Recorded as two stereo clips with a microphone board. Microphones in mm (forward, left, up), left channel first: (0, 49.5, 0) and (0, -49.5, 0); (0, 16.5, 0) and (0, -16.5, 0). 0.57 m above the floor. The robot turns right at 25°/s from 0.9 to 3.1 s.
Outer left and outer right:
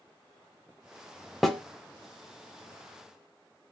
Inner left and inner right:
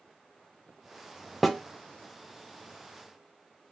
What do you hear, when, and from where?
1.4 s a snare drum: centre (ahead or behind), 1.0 m; by 1.6 s 5° left (ahead or behind), 1.0 m